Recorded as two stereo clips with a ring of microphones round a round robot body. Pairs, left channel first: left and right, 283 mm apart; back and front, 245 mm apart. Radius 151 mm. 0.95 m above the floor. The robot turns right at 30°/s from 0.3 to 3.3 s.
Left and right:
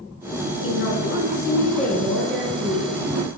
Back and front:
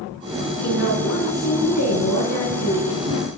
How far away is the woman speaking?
About 4.5 m.